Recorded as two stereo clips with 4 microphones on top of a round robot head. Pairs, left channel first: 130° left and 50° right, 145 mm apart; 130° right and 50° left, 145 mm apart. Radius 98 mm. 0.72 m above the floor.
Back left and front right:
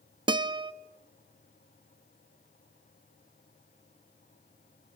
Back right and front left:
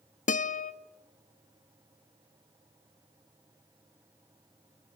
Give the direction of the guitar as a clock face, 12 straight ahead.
4 o'clock.